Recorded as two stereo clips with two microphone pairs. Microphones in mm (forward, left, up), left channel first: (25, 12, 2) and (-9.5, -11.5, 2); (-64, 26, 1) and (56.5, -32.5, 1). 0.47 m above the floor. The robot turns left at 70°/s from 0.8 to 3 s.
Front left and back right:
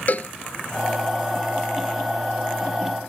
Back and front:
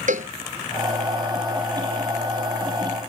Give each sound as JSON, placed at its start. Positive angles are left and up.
{"t": 0.1, "sound": "a cowbell", "azimuth_deg": -10}